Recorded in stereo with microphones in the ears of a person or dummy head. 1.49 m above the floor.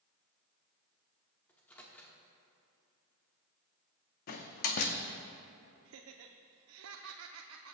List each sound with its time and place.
1.5 s a microwave: 10° left (ahead or behind), 1.3 m
4.3 s a door slam: 50° left (ahead or behind), 0.8 m
5.8 s laughter: 85° right, 0.6 m